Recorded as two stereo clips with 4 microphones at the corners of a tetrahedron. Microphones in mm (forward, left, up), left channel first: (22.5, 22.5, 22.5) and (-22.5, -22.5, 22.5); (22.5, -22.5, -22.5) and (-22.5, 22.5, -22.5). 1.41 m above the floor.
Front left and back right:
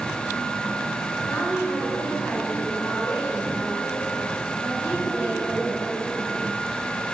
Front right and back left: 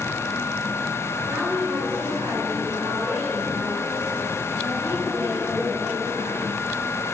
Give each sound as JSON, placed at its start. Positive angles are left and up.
{"t": 1.3, "sound": "a woman speaking", "azimuth_deg": 120, "distance_m": 5.5}